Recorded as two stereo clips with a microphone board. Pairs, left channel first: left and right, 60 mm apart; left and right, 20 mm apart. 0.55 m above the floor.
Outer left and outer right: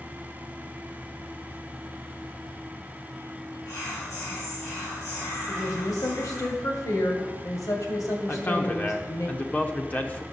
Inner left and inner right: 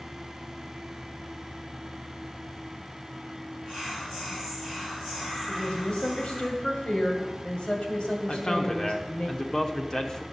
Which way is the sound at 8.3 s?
25° left (ahead or behind).